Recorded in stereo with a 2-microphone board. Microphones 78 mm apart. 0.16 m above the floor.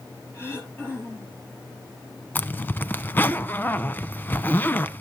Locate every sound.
0.3 s throat clearing: 30° left (ahead or behind), 3.5 m
2.4 s a zipper: 25° left (ahead or behind), 0.5 m